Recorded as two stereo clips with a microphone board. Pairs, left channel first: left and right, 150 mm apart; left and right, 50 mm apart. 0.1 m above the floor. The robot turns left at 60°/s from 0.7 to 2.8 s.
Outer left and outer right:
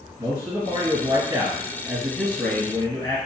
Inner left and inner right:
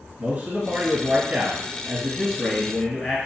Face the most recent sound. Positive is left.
turn(degrees=10)  # may be behind; listen again after turning